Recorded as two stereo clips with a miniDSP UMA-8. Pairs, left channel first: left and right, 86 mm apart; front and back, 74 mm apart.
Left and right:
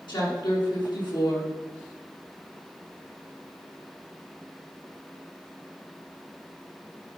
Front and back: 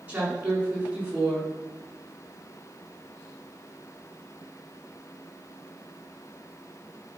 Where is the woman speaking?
110° left, 5 m.